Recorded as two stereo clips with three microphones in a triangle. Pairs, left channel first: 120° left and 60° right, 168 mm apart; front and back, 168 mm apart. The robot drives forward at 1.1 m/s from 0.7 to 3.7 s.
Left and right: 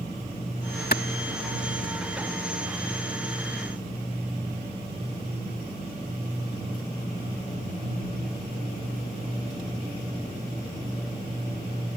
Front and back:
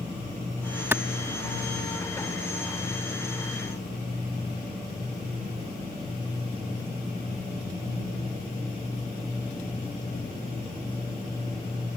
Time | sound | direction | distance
0.9 | a clap | 105° left | ?